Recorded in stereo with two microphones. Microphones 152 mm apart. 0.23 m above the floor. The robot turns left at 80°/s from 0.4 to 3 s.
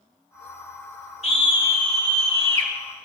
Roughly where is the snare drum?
I don't hear a snare drum.